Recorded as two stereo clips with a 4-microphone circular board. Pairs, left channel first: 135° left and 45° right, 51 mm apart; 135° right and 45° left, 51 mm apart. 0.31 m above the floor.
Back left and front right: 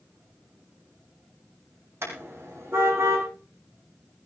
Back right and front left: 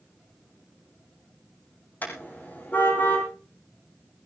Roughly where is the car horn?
Right.